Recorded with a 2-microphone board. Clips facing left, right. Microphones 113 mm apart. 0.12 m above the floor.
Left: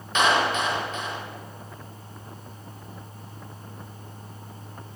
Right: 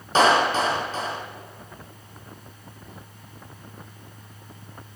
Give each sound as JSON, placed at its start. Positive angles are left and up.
{"t": 0.1, "sound": "a clap", "side_deg": -35, "distance_m": 4.0}